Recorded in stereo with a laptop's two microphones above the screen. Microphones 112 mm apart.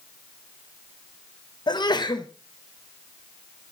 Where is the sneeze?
45° left (ahead or behind), 0.6 m.